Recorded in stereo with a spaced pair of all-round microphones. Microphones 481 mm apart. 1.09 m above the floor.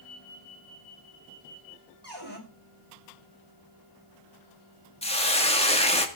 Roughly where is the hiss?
Centre.